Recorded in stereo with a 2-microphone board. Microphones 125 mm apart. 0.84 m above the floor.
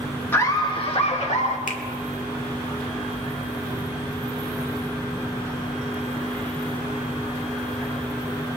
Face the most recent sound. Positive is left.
turn(degrees=85)